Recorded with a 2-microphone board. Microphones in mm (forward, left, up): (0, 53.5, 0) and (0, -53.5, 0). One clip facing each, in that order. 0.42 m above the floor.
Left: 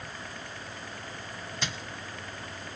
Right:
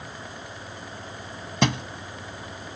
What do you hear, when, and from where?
1.6 s a thud: 75° right (ahead or behind)